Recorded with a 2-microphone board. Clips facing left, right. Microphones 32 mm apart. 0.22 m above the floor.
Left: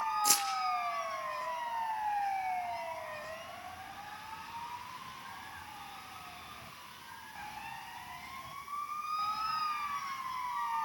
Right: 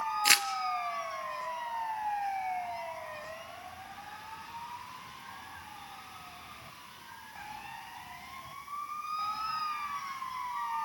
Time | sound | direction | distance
0.2 | crumpling | 55° right (ahead or behind) | 1.4 m